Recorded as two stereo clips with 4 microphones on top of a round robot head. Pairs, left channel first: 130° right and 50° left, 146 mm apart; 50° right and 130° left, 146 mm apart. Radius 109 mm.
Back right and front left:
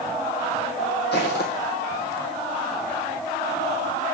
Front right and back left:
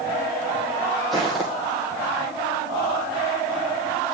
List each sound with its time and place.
1.1 s footsteps: 135° right, 1.2 m